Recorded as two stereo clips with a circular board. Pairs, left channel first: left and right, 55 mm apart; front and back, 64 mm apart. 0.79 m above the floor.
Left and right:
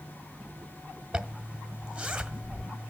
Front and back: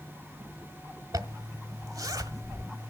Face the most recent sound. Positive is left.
turn(degrees=-160)